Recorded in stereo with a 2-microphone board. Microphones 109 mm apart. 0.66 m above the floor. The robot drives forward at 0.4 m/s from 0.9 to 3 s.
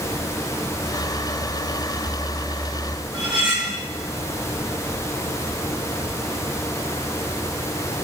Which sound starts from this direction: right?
Cutlery clinking, at 3.1 s.